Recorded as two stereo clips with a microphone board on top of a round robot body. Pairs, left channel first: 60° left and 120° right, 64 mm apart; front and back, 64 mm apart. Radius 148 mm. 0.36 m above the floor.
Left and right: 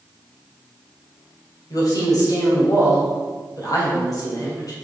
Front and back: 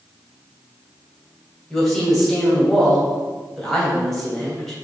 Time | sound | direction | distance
1.7 | a woman speaking | 85° left | 3 m